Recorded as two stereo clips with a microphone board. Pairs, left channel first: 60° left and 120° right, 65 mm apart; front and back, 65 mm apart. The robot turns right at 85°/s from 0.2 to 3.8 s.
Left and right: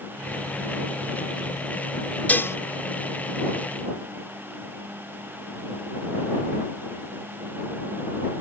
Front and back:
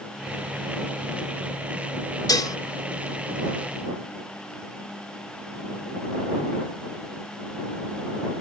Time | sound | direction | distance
2.3 | dishes clattering | 5° right | ?